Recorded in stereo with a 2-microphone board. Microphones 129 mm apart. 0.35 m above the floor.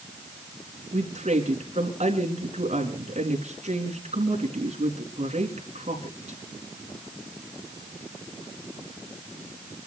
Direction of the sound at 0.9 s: 60° right (ahead or behind).